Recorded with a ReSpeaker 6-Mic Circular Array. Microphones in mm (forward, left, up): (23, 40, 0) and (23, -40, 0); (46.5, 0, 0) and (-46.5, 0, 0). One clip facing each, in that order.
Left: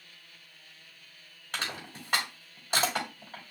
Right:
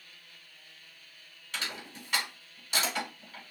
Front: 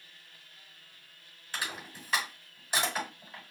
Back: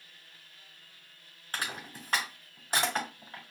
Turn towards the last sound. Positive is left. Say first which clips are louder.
# left 2 dB, back 1 dB
turn(degrees=135)